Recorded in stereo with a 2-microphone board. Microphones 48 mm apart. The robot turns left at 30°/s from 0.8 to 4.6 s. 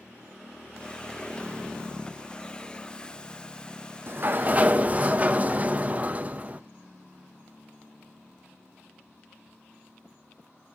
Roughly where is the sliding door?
Right.